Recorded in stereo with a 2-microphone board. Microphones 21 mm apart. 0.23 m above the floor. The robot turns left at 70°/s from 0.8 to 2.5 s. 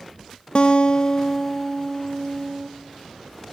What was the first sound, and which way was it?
A guitar, 55° left.